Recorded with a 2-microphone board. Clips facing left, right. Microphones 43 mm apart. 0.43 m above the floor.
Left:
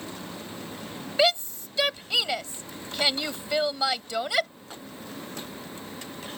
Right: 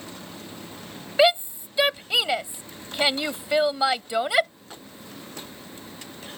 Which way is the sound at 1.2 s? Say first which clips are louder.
Right 4 dB; 15° right (ahead or behind).